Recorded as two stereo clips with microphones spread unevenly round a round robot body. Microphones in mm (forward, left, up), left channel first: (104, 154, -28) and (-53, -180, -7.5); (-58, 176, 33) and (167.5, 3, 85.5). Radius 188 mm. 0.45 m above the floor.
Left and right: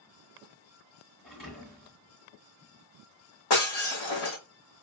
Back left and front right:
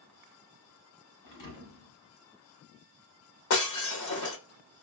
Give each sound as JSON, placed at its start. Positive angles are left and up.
{"t": 1.2, "sound": "a thud", "azimuth_deg": 155, "distance_m": 1.9}
{"t": 3.5, "sound": "breaking glass", "azimuth_deg": 120, "distance_m": 1.2}